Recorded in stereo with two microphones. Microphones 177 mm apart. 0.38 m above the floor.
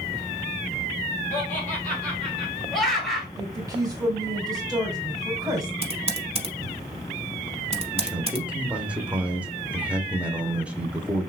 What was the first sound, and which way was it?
Laughter, 10° left (ahead or behind).